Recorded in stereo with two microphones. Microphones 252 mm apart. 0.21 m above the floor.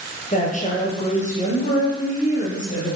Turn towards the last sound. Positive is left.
turn(degrees=30)  # may be behind; listen again after turning